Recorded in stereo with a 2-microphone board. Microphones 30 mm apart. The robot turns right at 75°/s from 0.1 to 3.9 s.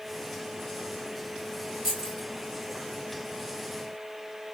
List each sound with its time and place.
1.8 s keys jangling: 5° right (ahead or behind), 2.5 m; by 2.3 s 25° left (ahead or behind), 2.5 m